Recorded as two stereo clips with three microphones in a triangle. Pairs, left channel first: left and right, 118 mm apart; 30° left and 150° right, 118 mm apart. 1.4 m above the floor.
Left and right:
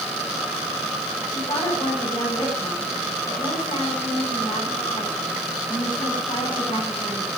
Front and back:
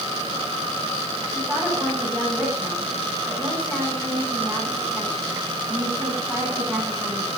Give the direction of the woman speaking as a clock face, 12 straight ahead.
8 o'clock.